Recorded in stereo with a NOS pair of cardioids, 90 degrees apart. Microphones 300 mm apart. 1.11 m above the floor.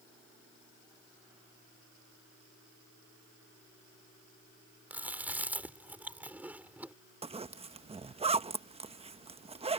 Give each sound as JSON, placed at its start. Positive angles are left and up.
{"t": 4.9, "sound": "chewing", "azimuth_deg": -5}
{"t": 7.2, "sound": "a zipper", "azimuth_deg": -20}